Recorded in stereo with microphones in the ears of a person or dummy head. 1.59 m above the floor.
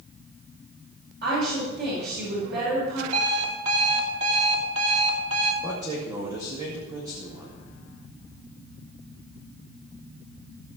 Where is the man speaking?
20° right (ahead or behind), 2.5 m.